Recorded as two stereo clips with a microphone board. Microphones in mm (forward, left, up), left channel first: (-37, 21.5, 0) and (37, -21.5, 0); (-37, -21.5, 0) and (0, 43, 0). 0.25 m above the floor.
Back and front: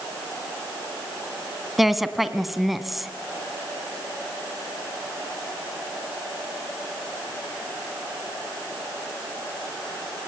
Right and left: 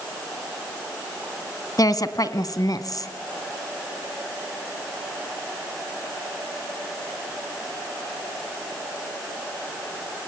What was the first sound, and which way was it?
A woman speaking, 120° right.